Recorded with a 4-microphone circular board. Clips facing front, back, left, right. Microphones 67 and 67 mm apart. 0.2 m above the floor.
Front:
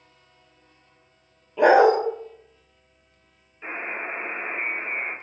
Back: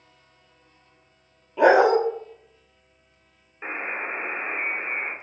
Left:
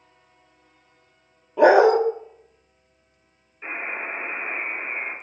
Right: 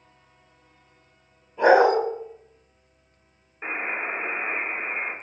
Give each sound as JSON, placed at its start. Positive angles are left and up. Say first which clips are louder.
{"t": 1.6, "sound": "a dog barking", "louder": "front 1 dB, left 2 dB", "azimuth_deg": 95, "distance_m": 1.2}
{"t": 3.6, "sound": "a buzzer", "louder": "back 1 dB, right 2 dB", "azimuth_deg": -135, "distance_m": 1.0}